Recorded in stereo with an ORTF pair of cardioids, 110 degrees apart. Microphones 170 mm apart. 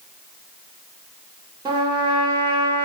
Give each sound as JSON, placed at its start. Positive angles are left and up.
{"t": 1.6, "sound": "a trumpet", "azimuth_deg": -30, "distance_m": 1.3}